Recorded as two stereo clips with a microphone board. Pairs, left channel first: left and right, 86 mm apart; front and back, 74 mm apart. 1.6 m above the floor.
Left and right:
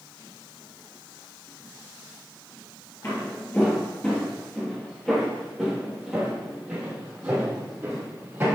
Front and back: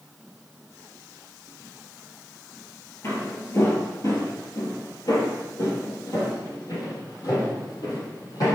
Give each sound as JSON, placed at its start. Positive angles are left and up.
{"t": 3.0, "sound": "footsteps", "azimuth_deg": 40, "distance_m": 2.0}